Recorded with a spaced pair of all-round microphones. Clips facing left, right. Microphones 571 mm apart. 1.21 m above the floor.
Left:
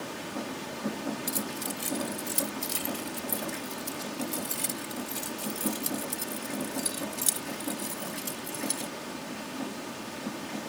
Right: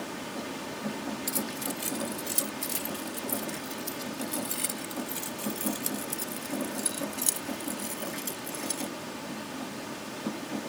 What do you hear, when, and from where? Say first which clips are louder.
1.3 s keys jangling: right 1 dB; 15° right (ahead or behind); by 8.9 s 35° left (ahead or behind)